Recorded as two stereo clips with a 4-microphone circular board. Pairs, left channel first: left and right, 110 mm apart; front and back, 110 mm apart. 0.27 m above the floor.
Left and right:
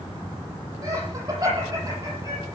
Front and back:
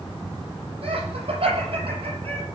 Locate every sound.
0.8 s laughter: 145° right, 8.5 m; by 2.5 s 150° right, 8.5 m